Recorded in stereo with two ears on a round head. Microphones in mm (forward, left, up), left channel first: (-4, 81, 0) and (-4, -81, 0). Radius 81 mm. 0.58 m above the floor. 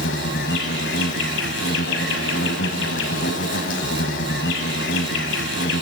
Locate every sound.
0.0 s an insect: 75° left (ahead or behind), 1.7 m